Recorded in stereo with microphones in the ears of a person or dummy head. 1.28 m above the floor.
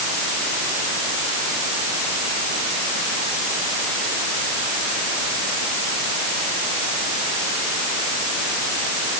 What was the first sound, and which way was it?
Only background noise.